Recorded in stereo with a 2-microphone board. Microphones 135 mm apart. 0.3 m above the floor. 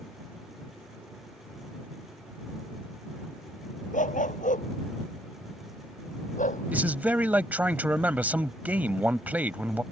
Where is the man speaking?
10° right (ahead or behind).